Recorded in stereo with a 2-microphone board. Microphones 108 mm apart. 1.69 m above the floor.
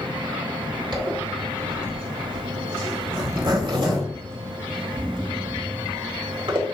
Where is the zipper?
50° right (ahead or behind), 2.5 m.